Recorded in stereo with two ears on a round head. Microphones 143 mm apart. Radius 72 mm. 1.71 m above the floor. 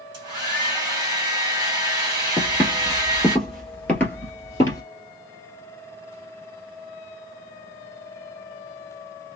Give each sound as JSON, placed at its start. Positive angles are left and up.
{"t": 0.1, "sound": "a hair dryer", "side_deg": -25, "distance_m": 2.0}
{"t": 2.4, "sound": "footsteps", "side_deg": -15, "distance_m": 1.9}